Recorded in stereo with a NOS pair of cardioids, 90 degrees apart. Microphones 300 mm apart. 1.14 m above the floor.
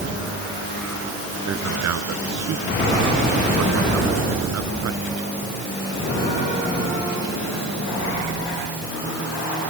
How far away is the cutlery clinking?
I don't hear cutlery clinking.